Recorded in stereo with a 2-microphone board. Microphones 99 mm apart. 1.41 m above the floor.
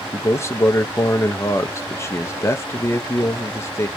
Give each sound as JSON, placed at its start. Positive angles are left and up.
{"t": 0.1, "sound": "a man speaking", "side_deg": 25, "distance_m": 0.7}